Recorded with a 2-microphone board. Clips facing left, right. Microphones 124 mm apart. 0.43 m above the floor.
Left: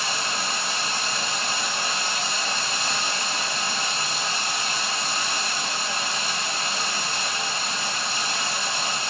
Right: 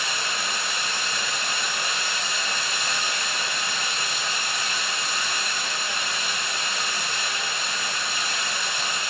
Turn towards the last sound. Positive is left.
turn(degrees=30)  # may be behind; listen again after turning